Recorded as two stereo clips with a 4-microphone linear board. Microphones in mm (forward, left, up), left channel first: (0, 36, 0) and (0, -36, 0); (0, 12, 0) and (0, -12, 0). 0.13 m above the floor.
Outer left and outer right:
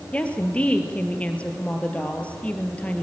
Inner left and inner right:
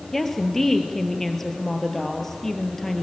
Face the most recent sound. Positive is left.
turn(degrees=20)  # may be behind; listen again after turning